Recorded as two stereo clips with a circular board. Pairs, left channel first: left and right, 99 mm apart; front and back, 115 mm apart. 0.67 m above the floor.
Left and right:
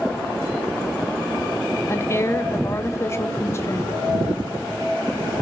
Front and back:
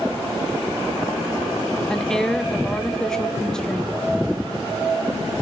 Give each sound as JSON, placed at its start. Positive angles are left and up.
{"t": 1.9, "sound": "a woman speaking", "azimuth_deg": 80, "distance_m": 0.9}